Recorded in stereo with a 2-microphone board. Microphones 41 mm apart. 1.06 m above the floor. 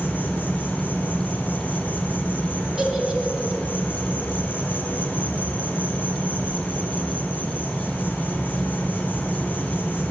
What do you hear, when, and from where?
0.0 s an insect: 45° left (ahead or behind), 2.0 m
2.8 s a giggle: 20° right (ahead or behind), 1.1 m